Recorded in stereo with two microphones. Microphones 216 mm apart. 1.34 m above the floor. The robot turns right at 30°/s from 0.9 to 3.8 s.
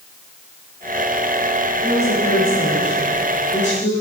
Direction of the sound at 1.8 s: 90° left.